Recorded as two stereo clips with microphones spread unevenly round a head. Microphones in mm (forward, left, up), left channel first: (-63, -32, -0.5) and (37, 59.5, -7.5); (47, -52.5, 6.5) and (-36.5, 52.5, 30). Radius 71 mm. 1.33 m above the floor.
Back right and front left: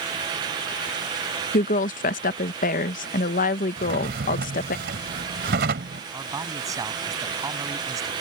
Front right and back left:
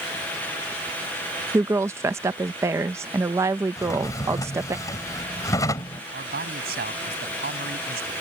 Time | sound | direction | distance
1.5 | a woman speaking | 160° right | ?
3.8 | a drawer | 20° left | ?
6.1 | a man speaking | 110° left | ?